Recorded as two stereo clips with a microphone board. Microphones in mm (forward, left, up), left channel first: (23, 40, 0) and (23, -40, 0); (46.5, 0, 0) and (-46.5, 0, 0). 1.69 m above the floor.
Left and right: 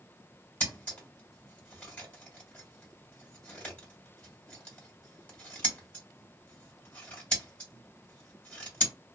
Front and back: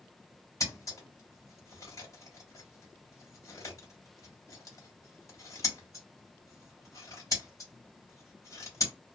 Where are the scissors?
25° left, 1.8 m.